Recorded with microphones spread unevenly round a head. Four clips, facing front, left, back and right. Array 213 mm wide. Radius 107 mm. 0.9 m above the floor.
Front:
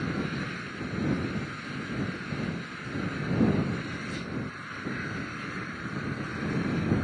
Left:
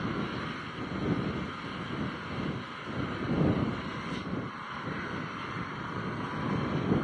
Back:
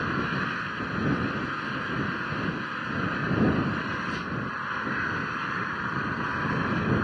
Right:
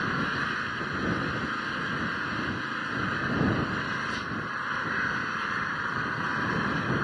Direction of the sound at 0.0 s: 115° right.